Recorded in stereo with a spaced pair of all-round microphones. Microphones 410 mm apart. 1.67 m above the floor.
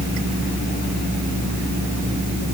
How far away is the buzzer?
I don't hear a buzzer.